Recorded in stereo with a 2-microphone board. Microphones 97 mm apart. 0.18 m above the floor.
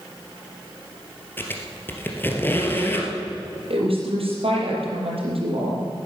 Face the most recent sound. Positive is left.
turn(degrees=-70)  # may be behind; listen again after turning